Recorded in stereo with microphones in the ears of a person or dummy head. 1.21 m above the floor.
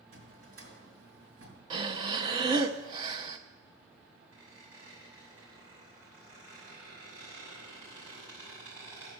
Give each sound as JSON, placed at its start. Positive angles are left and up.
{"t": 0.1, "sound": "a drawer", "side_deg": -55, "distance_m": 4.5}
{"t": 1.7, "sound": "breathing", "side_deg": -30, "distance_m": 0.7}
{"t": 4.3, "sound": "a squeak", "side_deg": -10, "distance_m": 7.0}